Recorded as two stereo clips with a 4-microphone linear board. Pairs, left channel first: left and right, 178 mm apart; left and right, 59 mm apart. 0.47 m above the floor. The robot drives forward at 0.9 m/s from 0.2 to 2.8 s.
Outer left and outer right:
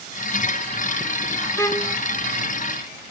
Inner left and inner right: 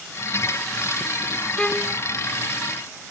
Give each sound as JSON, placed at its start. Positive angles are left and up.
{"t": 1.6, "sound": "a violin", "side_deg": 15}